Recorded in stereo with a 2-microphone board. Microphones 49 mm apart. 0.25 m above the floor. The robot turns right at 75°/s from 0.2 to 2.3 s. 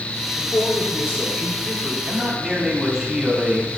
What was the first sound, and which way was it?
A man speaking, 75° left.